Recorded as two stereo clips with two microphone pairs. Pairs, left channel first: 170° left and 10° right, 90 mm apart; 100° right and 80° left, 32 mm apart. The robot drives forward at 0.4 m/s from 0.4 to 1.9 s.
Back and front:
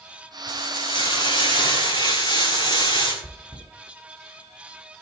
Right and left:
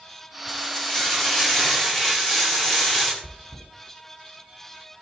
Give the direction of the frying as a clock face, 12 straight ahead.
6 o'clock.